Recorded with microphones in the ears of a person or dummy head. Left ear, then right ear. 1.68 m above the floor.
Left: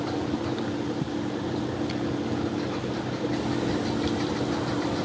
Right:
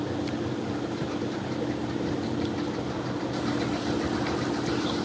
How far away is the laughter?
No laughter in this recording.